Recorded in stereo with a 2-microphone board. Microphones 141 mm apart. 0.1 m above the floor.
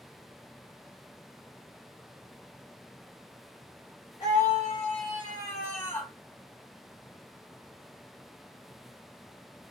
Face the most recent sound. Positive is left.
turn(degrees=10)  # may be behind; listen again after turning